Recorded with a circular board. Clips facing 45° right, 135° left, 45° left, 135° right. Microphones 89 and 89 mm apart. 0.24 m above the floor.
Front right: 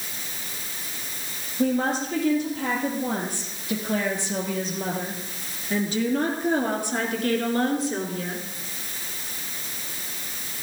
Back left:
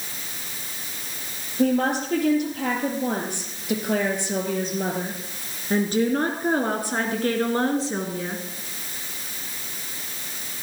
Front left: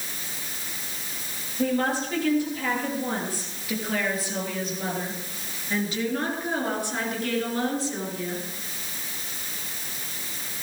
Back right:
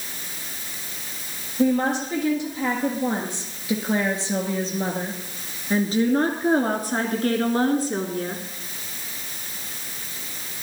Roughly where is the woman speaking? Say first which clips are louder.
Back left 2 dB, back right 4 dB; behind left.